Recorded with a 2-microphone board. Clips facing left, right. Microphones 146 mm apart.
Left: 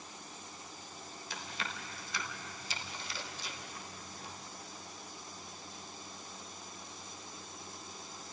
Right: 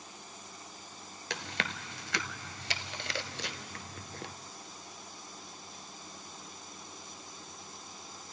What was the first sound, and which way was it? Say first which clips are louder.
Chewing: right 5 dB; 80° right.